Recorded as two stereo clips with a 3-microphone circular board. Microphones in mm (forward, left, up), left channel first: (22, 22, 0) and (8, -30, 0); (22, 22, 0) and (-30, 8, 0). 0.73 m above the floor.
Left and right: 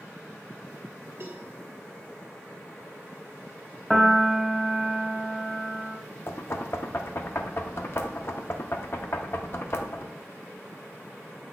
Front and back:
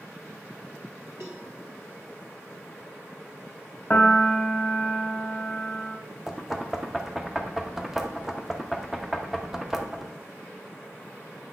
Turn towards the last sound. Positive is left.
turn(degrees=115)